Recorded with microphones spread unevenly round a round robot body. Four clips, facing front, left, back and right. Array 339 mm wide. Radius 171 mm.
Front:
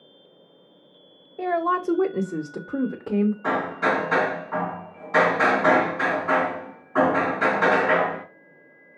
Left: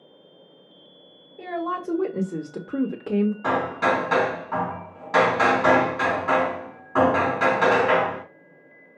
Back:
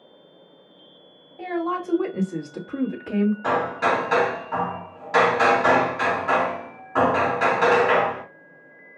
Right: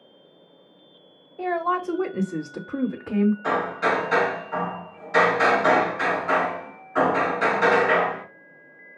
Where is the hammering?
110° left, 2.5 m.